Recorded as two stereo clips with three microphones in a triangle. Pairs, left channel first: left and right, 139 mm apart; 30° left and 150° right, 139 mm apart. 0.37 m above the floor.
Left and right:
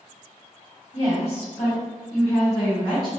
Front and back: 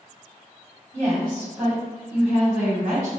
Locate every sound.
0.9 s a woman speaking: 125° left, 1.7 m; by 3.1 s 145° left, 3 m